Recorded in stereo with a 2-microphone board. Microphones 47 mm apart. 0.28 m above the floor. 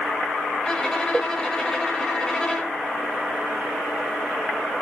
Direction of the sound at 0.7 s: 15° left (ahead or behind).